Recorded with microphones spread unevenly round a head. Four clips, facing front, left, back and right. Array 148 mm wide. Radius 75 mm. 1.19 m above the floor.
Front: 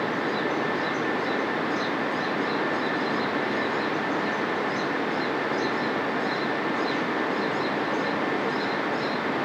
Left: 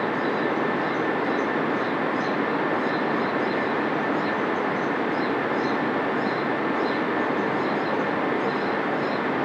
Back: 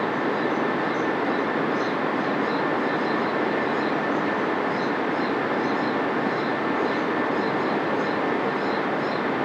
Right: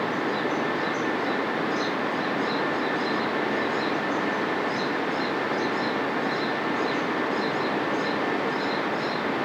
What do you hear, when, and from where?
Only background noise.